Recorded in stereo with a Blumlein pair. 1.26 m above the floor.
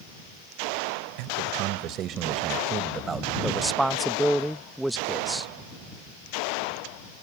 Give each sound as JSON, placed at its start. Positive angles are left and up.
{"t": 1.2, "sound": "a man speaking", "azimuth_deg": -45}
{"t": 3.4, "sound": "a man speaking", "azimuth_deg": -5}